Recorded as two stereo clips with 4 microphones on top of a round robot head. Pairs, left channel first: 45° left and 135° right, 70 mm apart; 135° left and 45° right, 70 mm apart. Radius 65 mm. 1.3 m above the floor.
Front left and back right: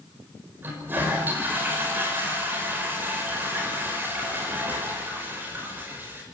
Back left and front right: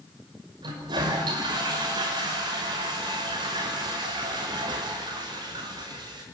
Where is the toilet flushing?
70° right, 6 m.